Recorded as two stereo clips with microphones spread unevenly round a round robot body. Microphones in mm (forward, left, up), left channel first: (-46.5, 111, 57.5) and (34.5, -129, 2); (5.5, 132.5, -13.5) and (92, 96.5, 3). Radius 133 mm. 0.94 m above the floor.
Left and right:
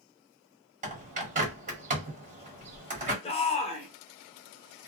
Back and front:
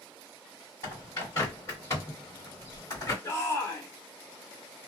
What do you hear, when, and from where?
0.8 s a bird: 135° right, 1.3 m
3.2 s a shout: straight behind, 1.0 m